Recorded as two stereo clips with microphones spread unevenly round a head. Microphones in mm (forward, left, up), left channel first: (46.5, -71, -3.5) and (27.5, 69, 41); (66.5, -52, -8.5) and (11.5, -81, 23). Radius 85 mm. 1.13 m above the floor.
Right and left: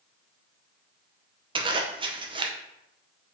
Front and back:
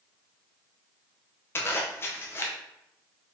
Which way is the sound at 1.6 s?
35° left.